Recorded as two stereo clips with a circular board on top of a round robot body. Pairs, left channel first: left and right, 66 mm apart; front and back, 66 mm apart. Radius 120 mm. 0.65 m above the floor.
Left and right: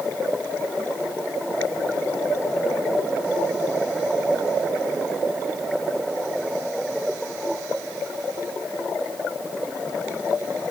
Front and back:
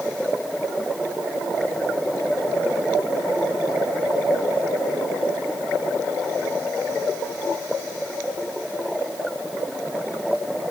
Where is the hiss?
No hiss in this recording.